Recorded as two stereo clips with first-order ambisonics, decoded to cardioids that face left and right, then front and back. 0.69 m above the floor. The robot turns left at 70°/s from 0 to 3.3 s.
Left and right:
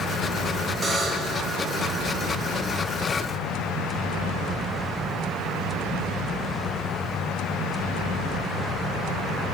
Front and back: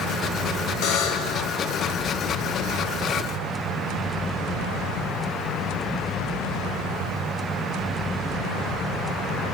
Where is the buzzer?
5° left, 1.5 m; by 1.4 s 35° right, 1.5 m.